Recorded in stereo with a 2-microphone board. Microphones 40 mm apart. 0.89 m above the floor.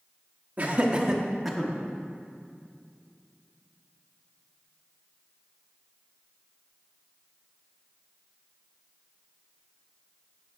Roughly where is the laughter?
Right.